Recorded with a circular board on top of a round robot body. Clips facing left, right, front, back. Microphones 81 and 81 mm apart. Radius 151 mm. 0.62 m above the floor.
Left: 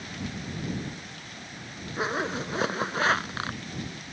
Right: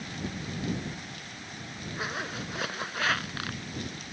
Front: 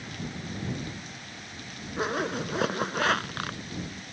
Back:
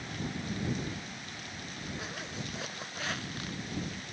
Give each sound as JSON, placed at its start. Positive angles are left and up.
{"t": 2.0, "sound": "a zipper", "azimuth_deg": 30}